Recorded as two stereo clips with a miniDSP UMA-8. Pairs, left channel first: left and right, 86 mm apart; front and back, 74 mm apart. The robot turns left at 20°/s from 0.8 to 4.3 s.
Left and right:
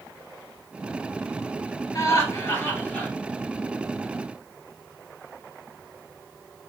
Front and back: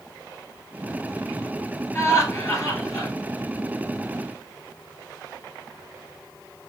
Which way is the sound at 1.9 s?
45° left.